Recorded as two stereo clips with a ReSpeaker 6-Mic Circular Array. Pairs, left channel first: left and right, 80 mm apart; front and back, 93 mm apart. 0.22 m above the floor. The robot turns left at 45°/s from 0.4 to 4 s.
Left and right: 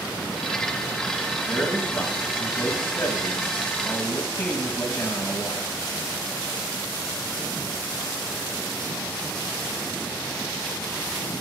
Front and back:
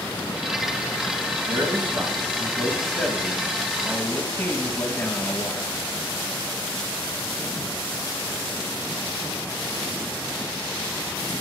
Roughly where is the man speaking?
Behind left.